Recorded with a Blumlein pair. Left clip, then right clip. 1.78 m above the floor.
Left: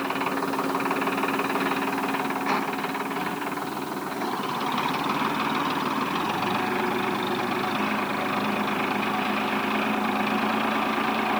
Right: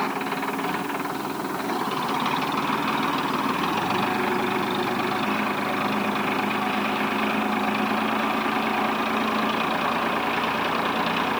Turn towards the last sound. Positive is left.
No sound to turn to.